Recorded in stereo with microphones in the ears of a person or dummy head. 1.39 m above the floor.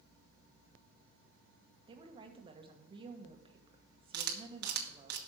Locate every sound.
1.9 s a woman speaking: 20° right (ahead or behind), 1.3 m
4.1 s a camera shutter: 55° right (ahead or behind), 1.3 m